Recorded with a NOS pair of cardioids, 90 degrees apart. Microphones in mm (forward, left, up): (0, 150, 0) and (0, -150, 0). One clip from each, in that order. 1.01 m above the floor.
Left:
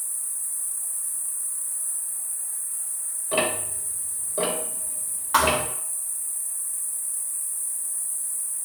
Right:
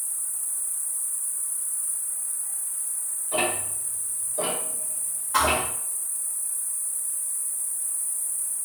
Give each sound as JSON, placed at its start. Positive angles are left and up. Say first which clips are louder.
{"t": 0.0, "sound": "an insect", "louder": "even", "azimuth_deg": 0, "distance_m": 0.7}
{"t": 3.3, "sound": "ticking", "louder": "left 2 dB", "azimuth_deg": 65, "distance_m": 1.1}
{"t": 5.3, "sound": "a thud", "louder": "left 2 dB", "azimuth_deg": 45, "distance_m": 0.8}